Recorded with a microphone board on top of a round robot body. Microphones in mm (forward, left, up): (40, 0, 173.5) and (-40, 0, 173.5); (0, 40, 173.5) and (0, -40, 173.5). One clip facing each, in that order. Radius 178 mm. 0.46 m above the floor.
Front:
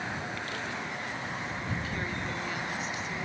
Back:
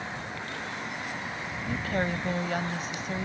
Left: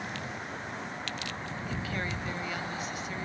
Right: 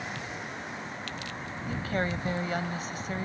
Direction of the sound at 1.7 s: 140° right.